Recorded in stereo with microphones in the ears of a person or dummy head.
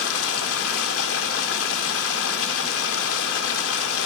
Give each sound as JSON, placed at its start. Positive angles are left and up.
{"t": 0.0, "sound": "running water", "side_deg": 75, "distance_m": 3.0}